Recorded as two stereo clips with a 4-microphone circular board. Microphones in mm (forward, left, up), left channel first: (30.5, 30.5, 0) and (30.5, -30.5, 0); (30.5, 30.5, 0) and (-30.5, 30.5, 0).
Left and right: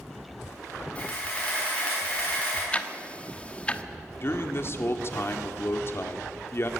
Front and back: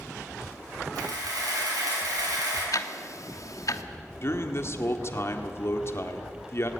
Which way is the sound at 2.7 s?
20° left.